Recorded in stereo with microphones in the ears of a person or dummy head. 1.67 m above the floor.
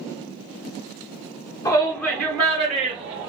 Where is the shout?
15° left (ahead or behind), 0.8 m; by 3.3 s 30° right (ahead or behind), 1.3 m.